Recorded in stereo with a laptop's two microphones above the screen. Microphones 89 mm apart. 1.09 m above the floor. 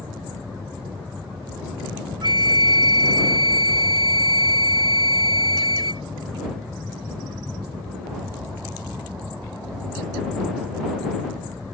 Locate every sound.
2.2 s a flute: 65° right (ahead or behind)